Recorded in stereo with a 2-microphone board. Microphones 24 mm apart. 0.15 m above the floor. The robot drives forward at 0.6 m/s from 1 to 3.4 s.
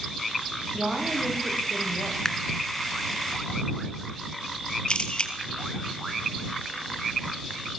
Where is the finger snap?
20° left (ahead or behind), 1.8 m.